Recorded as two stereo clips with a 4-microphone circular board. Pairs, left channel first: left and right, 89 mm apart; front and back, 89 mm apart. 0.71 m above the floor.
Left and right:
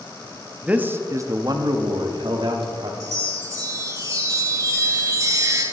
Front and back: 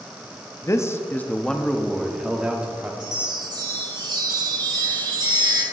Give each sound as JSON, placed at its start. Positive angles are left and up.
{"t": 0.6, "sound": "a man speaking", "azimuth_deg": -20, "distance_m": 0.6}
{"t": 3.0, "sound": "a chime", "azimuth_deg": -145, "distance_m": 1.8}